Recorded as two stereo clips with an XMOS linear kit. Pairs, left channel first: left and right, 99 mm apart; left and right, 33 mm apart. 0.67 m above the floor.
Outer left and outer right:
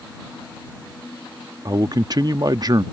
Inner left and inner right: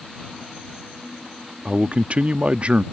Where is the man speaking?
40° right (ahead or behind).